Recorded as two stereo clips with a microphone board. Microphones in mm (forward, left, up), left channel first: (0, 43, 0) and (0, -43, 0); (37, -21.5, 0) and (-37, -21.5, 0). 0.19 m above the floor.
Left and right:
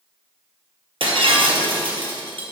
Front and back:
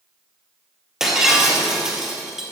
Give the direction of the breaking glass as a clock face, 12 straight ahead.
3 o'clock.